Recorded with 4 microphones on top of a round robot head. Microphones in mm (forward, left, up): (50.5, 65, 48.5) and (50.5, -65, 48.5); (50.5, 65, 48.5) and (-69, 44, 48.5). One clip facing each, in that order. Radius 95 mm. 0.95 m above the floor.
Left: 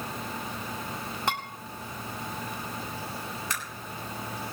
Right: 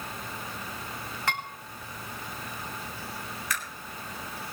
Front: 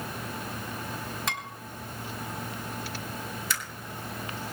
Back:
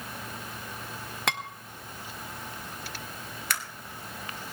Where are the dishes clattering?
165° left, 2.0 m.